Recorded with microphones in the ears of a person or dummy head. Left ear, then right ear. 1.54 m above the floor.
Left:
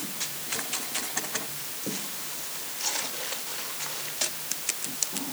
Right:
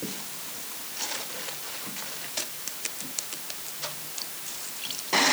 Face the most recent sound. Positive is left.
No sound to turn to.